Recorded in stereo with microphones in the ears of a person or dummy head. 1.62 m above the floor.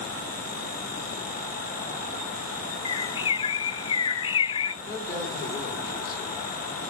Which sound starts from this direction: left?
A bird, at 2.9 s.